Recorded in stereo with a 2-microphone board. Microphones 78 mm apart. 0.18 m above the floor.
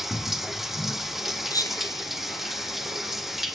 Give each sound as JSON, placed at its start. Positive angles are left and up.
{"t": 0.0, "sound": "running water", "side_deg": -5, "distance_m": 1.2}
{"t": 1.5, "sound": "whispering", "side_deg": 55, "distance_m": 2.5}